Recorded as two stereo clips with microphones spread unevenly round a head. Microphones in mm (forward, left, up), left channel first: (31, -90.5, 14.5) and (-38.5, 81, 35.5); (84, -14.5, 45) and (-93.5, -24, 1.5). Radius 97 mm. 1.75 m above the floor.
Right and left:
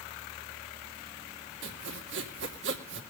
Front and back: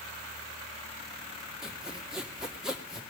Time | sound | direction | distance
1.6 | sawing | 90° left | 2.5 m